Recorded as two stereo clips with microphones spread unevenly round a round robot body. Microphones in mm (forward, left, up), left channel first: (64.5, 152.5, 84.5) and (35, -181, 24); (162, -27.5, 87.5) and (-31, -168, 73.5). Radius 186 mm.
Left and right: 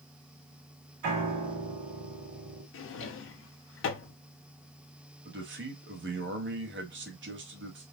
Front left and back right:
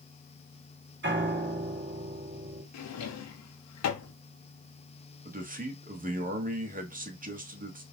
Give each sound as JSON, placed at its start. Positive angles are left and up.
{"t": 1.0, "sound": "a piano", "azimuth_deg": -105, "distance_m": 2.5}
{"t": 2.7, "sound": "a drawer", "azimuth_deg": 30, "distance_m": 0.8}
{"t": 5.2, "sound": "a man speaking", "azimuth_deg": -110, "distance_m": 1.4}